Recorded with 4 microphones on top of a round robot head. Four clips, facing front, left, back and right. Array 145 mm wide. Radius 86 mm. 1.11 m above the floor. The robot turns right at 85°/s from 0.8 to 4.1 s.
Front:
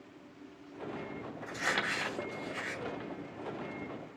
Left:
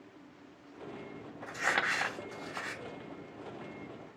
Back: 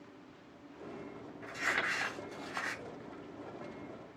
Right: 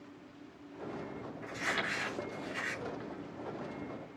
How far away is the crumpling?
About 2.5 m.